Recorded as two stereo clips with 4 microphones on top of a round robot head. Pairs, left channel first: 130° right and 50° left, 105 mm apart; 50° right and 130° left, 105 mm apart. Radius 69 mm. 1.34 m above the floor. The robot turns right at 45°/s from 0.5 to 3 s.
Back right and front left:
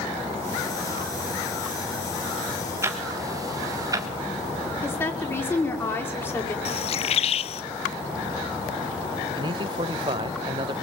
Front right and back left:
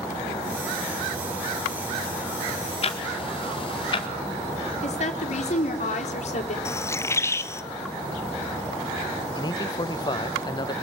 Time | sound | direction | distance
2.8 | ticking | 15° right | 1.9 m
4.8 | a woman speaking | 60° right | 4.5 m
6.7 | a bird | 115° right | 1.0 m
9.3 | a man speaking | 5° left | 1.4 m